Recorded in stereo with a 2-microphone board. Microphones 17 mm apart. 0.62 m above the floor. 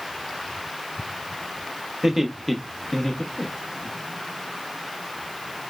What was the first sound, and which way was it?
Laughter, 20° right (ahead or behind).